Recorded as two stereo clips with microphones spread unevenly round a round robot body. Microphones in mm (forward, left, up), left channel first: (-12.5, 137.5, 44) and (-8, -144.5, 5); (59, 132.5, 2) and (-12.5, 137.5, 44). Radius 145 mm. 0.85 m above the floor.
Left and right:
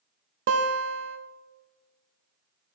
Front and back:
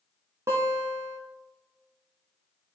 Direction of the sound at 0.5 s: 100° right.